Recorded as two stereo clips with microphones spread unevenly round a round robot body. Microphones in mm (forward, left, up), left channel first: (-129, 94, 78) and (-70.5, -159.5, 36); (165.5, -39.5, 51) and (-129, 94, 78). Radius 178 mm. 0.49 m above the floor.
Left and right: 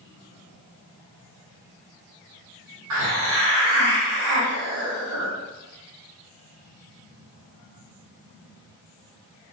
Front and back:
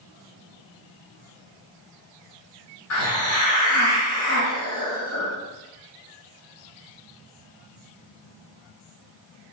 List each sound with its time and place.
2.9 s a hiss: 70° right, 1.6 m